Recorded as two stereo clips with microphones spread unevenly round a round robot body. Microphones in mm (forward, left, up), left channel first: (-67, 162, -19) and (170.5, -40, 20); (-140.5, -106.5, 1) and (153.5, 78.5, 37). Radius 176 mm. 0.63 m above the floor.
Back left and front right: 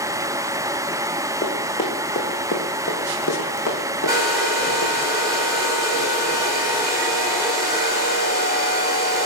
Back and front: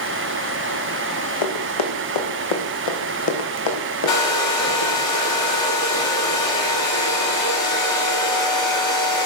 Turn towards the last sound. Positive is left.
turn(degrees=-125)